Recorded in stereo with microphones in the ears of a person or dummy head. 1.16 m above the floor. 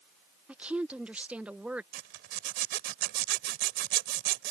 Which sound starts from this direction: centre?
A woman speaking, at 0.5 s.